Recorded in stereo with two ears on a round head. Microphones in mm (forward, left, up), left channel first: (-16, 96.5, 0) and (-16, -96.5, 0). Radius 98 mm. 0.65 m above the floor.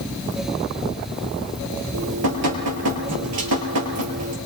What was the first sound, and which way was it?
Dripping, 80° right.